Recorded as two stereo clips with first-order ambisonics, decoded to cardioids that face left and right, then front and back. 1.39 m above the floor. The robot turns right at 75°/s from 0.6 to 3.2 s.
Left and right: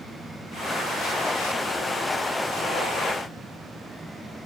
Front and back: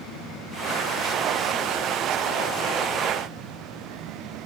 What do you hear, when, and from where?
Only background noise.